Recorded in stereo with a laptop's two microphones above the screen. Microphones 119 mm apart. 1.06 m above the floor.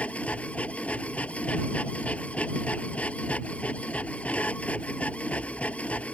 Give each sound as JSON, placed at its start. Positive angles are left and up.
{"t": 0.0, "sound": "a machine running", "side_deg": 10}